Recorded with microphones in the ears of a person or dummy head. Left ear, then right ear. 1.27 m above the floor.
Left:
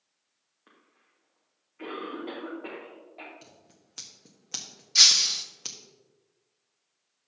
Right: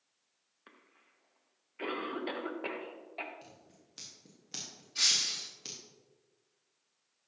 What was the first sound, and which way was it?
A cough, 65° right (ahead or behind).